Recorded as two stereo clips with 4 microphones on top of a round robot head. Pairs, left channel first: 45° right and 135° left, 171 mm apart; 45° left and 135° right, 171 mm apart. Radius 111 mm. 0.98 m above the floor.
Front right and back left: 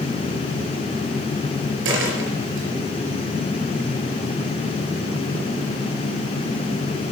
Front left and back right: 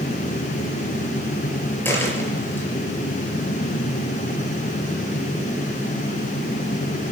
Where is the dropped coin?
120° left, 4 m.